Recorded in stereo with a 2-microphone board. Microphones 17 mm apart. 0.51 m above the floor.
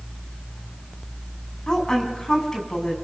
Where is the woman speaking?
40° left (ahead or behind), 5.5 m.